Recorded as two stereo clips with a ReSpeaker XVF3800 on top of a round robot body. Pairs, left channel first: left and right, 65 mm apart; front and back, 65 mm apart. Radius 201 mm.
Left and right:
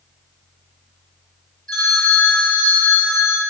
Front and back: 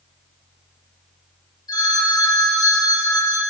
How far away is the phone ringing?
About 3.5 m.